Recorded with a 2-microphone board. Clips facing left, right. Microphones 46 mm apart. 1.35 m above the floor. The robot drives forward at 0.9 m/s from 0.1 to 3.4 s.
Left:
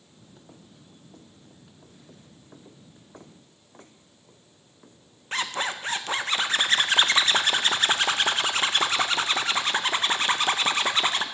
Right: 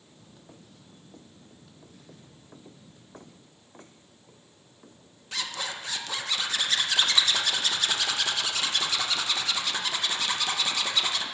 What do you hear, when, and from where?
5.3 s a zipper: 35° left (ahead or behind), 0.6 m